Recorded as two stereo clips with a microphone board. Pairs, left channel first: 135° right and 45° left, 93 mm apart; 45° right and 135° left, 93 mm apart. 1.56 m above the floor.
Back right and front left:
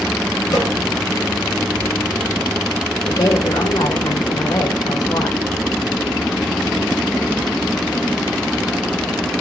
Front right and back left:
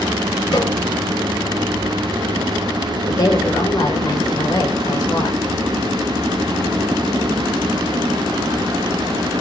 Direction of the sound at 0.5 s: 85° right.